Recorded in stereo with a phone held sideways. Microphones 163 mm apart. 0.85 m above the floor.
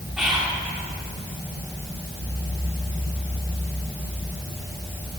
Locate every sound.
0.2 s whispering: 5° right (ahead or behind), 2.5 m